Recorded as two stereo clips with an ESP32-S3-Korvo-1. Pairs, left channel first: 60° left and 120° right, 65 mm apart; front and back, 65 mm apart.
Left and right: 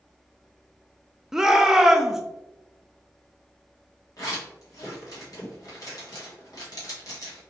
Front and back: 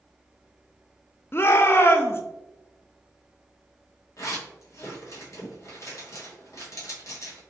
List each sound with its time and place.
1.3 s a shout: 40° right, 0.5 m
4.2 s a zipper: 40° left, 1.2 m